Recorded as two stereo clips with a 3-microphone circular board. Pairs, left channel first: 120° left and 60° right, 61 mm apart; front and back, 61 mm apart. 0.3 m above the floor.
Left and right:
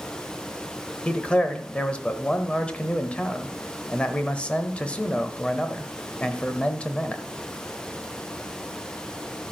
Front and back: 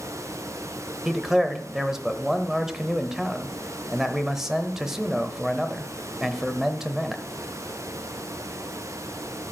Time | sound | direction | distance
1.1 | a man speaking | 110° left | 0.9 m